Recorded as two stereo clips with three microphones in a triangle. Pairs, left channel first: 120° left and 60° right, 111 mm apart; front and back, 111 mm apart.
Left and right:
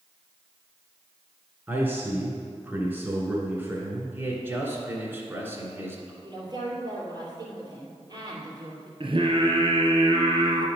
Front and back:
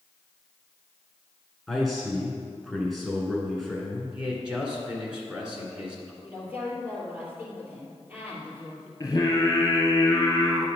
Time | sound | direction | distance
1.7 | a man speaking | 90° right | 1.2 m
4.1 | a man speaking | 105° right | 1.8 m
6.2 | a woman speaking | 110° right | 3 m
9.0 | singing | 50° right | 1.5 m